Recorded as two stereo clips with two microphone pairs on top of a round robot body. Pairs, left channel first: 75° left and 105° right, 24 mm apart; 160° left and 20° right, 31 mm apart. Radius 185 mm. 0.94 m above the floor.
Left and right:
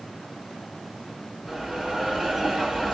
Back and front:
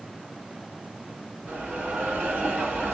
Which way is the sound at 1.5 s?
20° right.